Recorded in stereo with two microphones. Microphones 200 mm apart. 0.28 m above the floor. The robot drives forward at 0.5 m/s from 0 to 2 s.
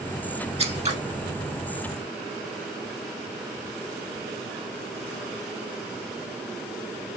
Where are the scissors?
30° right (ahead or behind), 1.2 m; by 1.0 s 35° right (ahead or behind), 1.1 m.